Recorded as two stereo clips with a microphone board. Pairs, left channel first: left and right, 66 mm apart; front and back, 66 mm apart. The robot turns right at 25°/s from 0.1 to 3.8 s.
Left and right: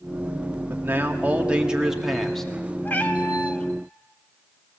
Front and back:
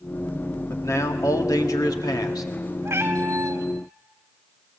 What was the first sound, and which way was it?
A man speaking, 40° right.